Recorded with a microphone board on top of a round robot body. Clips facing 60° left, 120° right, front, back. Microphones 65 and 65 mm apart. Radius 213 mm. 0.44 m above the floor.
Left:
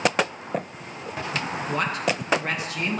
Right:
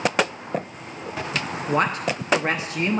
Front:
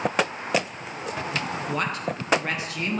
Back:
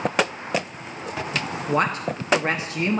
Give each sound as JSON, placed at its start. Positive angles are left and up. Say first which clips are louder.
{"t": 1.7, "sound": "a woman speaking", "louder": "right 4 dB, back 7 dB", "azimuth_deg": -145, "distance_m": 0.9}